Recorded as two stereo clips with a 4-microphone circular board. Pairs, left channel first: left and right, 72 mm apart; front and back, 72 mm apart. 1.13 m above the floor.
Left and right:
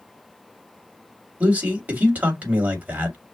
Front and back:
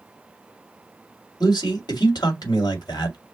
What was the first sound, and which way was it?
A man speaking, 20° right.